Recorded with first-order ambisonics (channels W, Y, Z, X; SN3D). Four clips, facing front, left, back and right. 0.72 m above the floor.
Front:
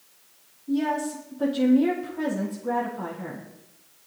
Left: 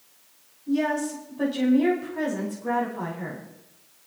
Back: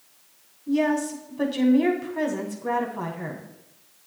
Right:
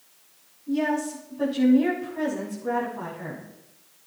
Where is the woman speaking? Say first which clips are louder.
Even, back 3 dB; 170° left, 7 m.